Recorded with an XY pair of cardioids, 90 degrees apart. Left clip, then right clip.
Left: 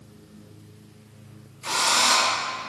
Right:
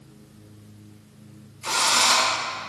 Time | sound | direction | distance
1.6 | a drill | 15° right | 3 m